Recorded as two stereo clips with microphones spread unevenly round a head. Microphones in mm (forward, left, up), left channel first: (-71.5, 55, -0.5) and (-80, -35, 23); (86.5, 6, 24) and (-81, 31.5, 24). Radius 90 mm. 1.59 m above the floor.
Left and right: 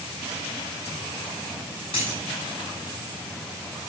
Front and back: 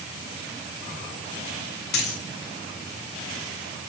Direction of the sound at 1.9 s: 15° left.